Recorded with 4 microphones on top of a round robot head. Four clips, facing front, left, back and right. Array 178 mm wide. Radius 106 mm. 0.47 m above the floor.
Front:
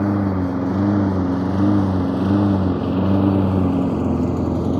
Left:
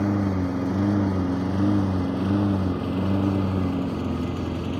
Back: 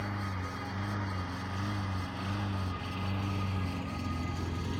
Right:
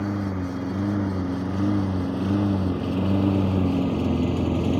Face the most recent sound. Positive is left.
turn(degrees=-25)